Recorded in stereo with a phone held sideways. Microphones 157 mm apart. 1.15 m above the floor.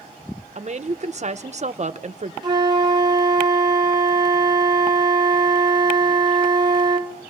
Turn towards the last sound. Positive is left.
turn(degrees=-25)  # may be behind; listen again after turning